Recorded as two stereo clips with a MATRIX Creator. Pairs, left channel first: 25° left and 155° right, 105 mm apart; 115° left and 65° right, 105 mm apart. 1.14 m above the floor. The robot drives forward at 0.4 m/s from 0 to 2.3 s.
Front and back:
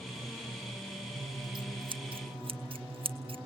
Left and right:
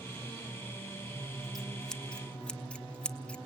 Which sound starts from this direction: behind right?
Scissors, at 1.2 s.